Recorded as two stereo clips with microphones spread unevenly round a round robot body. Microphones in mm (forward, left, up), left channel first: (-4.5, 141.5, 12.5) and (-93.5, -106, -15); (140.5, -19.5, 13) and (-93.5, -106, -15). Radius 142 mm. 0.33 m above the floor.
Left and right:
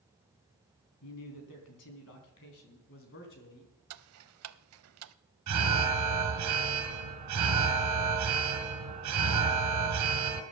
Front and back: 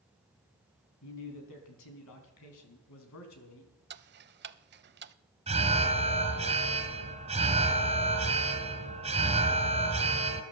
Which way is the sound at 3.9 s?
120° right.